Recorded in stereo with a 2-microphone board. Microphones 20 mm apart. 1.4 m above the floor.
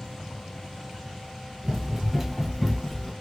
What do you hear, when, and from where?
1.6 s running footsteps: 25° right (ahead or behind), 1.5 m; by 3.1 s 5° left (ahead or behind), 1.5 m